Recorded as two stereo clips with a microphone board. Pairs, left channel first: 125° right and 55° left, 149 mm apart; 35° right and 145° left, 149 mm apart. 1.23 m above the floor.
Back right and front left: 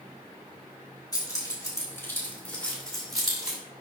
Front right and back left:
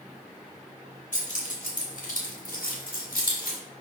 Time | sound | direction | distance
1.1 | keys jangling | 60° right | 2.5 m